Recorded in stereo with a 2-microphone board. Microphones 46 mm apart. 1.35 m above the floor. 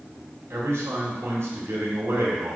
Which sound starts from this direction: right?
A man speaking, at 0.5 s.